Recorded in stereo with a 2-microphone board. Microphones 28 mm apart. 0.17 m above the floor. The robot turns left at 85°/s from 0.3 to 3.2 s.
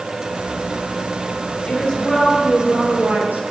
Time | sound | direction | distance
1.7 | a woman speaking | 50° left | 3.5 m